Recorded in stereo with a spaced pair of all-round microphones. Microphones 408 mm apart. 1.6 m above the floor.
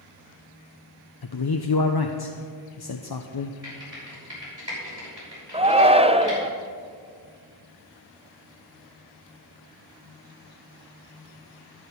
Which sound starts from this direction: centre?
A shout, at 5.5 s.